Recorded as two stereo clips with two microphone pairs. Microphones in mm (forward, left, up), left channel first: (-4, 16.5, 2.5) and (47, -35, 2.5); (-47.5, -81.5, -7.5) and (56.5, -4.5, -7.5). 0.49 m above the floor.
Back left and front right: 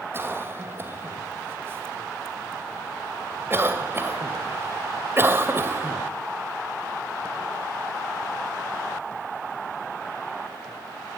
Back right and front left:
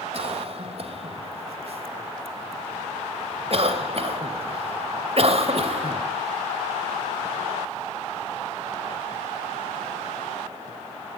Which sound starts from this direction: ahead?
A cough, at 0.1 s.